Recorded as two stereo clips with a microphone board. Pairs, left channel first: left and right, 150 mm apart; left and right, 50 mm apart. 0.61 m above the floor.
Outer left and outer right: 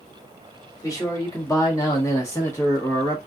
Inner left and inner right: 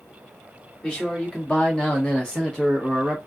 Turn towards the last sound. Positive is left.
turn(degrees=15)  # may be behind; listen again after turning